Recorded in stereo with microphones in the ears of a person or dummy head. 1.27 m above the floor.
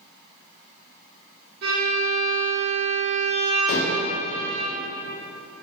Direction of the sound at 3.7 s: 50° left (ahead or behind).